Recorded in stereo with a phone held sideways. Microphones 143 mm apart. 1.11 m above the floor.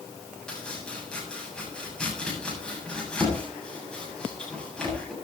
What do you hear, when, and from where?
0.5 s chopping: 5° left (ahead or behind), 7.5 m